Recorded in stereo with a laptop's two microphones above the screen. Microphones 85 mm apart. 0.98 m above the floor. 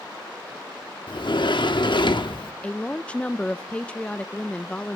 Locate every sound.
1.1 s a sliding door: 65° left (ahead or behind), 1.1 m
2.6 s a woman speaking: 15° left (ahead or behind), 0.5 m